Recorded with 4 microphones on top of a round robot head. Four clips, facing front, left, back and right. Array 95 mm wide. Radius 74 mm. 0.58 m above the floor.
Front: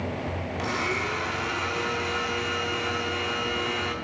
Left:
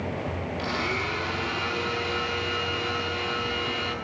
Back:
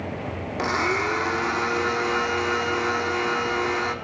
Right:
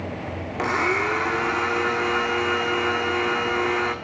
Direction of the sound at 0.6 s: 125° right.